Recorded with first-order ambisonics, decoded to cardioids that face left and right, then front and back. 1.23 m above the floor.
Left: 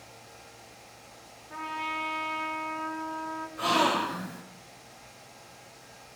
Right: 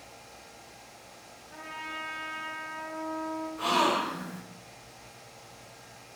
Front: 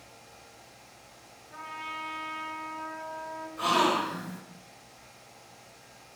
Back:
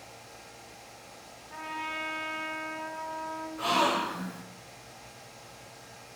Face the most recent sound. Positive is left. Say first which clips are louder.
# left 1 dB, front 1 dB
turn(degrees=45)